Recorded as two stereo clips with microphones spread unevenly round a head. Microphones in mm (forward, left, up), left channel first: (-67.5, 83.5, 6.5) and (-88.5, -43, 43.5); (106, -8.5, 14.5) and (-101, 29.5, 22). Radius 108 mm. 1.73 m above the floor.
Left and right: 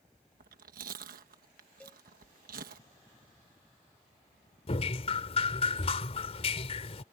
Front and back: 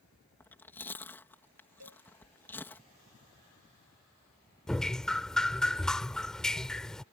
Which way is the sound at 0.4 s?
90° right.